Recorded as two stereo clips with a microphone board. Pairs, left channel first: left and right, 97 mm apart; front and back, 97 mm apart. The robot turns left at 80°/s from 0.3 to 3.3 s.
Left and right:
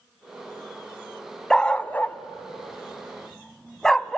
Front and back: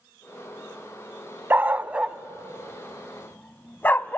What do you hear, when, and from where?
1.5 s a dog barking: 160° left, 0.5 m; by 4.2 s 15° left, 0.5 m